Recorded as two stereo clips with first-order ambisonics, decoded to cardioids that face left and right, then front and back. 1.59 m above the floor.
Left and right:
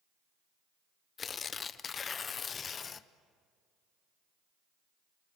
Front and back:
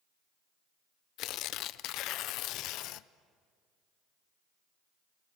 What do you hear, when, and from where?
1.2 s tearing paper: 25° left, 0.5 m